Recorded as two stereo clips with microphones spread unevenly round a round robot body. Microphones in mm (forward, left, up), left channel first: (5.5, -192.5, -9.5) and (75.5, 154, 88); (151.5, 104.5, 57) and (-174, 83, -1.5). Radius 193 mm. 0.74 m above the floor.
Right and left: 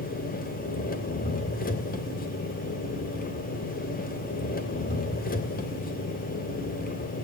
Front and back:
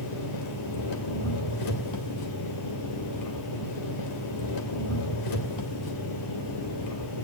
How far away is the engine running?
About 2.5 m.